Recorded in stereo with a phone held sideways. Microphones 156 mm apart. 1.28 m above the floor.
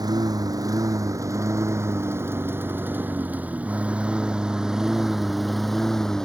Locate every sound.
0.0 s a lawn mower: 25° right (ahead or behind); by 6.3 s 5° left (ahead or behind)